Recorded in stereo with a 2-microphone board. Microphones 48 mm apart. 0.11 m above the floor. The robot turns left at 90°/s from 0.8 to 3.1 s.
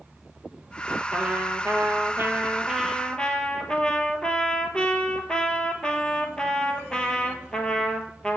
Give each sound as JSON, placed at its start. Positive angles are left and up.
{"t": 1.1, "sound": "a trumpet", "azimuth_deg": -20, "distance_m": 1.2}